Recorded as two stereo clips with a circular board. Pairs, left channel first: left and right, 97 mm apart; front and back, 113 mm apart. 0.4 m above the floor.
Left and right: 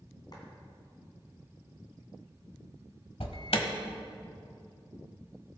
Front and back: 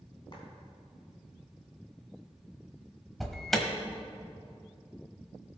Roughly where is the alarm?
Left.